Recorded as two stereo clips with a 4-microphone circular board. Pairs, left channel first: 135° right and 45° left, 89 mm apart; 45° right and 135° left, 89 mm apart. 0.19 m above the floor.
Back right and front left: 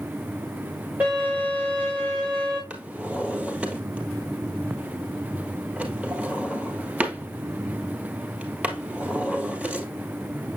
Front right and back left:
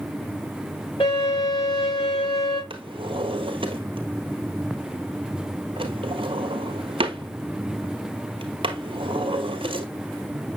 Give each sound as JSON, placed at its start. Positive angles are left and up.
{"t": 1.0, "sound": "a violin", "azimuth_deg": -25, "distance_m": 5.0}
{"t": 2.7, "sound": "a drawer", "azimuth_deg": 120, "distance_m": 1.2}